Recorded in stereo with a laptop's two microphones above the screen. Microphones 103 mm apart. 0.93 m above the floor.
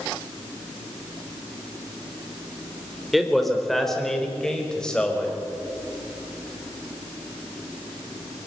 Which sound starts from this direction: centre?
A man speaking, at 3.1 s.